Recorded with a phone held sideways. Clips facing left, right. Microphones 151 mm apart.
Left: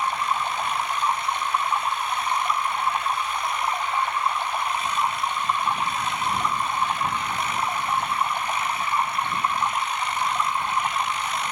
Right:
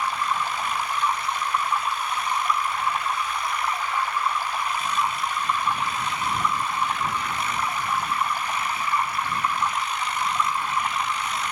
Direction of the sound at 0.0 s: 25° left (ahead or behind).